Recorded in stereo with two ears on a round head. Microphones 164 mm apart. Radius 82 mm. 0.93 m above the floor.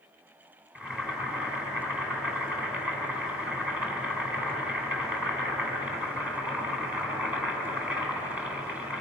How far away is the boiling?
About 4 m.